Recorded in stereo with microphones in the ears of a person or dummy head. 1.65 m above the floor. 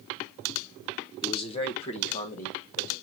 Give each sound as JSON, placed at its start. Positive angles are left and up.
{"t": 1.2, "sound": "a man speaking", "side_deg": 30, "distance_m": 1.0}